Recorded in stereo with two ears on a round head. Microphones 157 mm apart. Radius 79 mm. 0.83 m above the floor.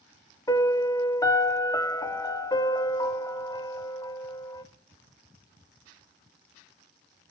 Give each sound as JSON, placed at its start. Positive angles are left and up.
{"t": 0.5, "sound": "a piano", "side_deg": 20, "distance_m": 0.6}